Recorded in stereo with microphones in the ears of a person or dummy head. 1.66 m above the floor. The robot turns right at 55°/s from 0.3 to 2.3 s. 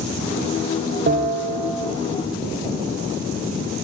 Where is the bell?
55° right, 0.7 m; by 1.9 s 10° right, 0.7 m.